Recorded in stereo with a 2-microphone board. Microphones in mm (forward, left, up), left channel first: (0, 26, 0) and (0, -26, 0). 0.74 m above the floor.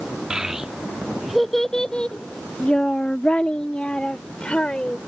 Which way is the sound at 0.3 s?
15° right (ahead or behind).